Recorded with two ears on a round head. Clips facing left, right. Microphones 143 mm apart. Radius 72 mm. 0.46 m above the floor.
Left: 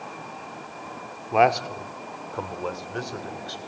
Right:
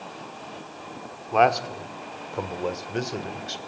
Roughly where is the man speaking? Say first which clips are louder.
Even; centre.